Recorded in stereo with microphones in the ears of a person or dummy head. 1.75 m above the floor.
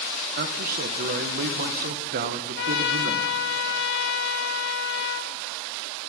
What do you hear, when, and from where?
0.4 s a man speaking: 55° right (ahead or behind), 1.4 m
2.6 s a trumpet: 50° left (ahead or behind), 1.4 m